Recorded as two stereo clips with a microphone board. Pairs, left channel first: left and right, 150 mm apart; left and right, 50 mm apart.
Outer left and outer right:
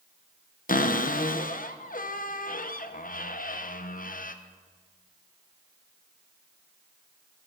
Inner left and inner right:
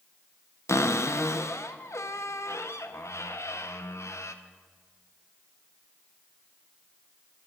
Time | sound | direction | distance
0.7 | a cupboard door | 65° left (ahead or behind) | 0.5 m